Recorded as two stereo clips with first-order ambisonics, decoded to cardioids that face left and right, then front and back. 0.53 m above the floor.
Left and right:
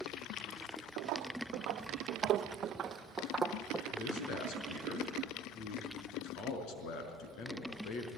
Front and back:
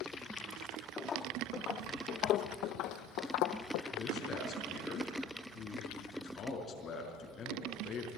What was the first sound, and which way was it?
Footsteps, 70° right.